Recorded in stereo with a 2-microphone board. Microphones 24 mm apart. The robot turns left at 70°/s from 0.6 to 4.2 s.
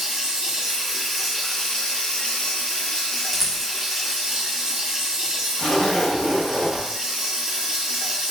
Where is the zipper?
25° left (ahead or behind), 1.0 m.